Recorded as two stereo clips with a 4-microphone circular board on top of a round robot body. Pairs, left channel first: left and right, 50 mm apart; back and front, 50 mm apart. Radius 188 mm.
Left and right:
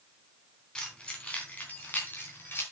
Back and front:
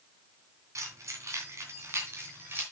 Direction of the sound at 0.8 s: 15° left.